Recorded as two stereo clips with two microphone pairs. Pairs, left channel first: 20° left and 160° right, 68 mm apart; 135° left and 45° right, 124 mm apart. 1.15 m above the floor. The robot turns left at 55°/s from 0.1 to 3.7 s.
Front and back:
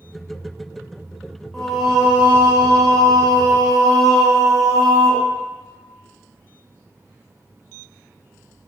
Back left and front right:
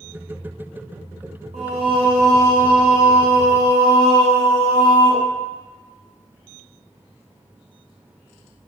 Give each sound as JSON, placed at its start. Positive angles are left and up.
{"t": 1.5, "sound": "singing", "azimuth_deg": -60, "distance_m": 0.5}